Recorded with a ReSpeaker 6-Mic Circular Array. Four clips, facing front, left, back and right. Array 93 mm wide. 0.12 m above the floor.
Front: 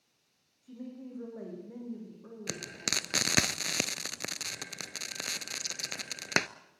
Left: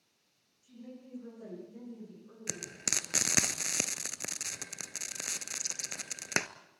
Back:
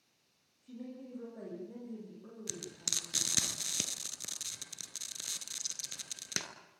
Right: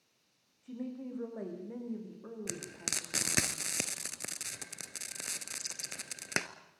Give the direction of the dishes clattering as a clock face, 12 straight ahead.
No dishes clattering in this recording.